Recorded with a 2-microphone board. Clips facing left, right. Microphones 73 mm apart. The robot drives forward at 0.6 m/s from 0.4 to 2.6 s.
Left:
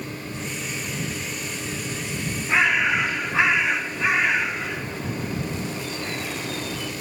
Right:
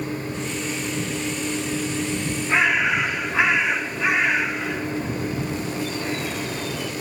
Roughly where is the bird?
Centre.